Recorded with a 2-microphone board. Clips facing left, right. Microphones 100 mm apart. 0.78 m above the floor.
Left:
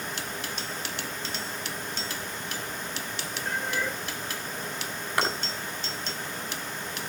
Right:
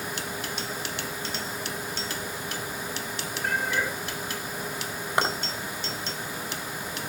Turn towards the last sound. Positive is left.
turn(degrees=-25)  # may be behind; listen again after turning